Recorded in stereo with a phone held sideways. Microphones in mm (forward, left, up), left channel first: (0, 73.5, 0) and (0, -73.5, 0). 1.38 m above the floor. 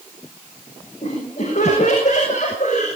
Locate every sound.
1.0 s laughter: 50° left (ahead or behind), 7 m; by 2.9 s 55° left (ahead or behind), 8 m